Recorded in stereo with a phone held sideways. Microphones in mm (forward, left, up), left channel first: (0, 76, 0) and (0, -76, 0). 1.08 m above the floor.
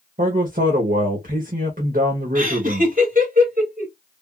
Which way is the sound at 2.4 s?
60° right (ahead or behind).